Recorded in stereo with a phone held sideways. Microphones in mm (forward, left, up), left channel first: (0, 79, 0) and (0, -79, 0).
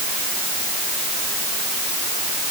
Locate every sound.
Only background noise.